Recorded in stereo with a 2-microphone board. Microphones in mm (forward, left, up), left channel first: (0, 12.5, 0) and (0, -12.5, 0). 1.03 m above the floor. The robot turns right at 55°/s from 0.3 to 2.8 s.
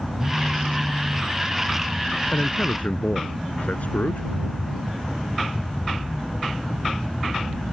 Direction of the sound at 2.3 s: 75° left (ahead or behind).